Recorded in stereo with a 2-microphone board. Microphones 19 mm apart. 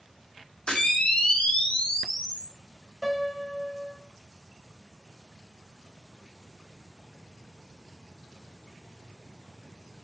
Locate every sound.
0.7 s a camera shutter: 60° left (ahead or behind), 5.5 m
3.0 s a piano: 10° left (ahead or behind), 3.5 m